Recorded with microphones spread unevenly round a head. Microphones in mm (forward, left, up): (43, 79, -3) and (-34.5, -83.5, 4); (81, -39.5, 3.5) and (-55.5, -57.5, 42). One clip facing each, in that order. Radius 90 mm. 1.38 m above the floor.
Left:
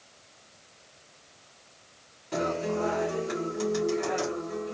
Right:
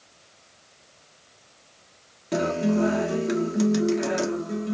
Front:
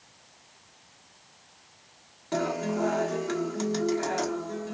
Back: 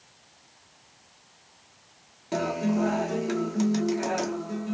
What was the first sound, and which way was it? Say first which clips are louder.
A guitar: right 6 dB, back 2 dB; 100° right.